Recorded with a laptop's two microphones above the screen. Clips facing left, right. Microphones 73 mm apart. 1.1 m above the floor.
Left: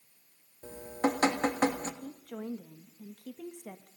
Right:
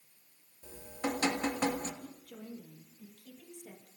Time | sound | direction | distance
0.6 | dripping | 50° left (ahead or behind) | 1.8 m
2.0 | a woman speaking | 70° left (ahead or behind) | 1.5 m